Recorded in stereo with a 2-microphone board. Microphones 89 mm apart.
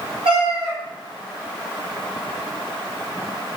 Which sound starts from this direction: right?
A cat meowing, at 0.2 s.